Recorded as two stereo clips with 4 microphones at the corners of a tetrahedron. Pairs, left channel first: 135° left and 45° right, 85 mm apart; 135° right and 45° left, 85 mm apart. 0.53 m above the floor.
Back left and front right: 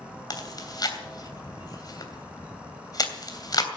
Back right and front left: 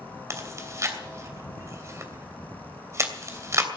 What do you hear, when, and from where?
0.3 s chewing: 95° left, 2.5 m